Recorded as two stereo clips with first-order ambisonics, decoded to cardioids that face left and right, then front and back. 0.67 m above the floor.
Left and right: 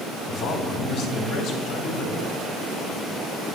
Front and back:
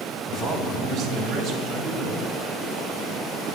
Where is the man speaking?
125° left, 2 m; by 2.4 s 110° left, 4 m.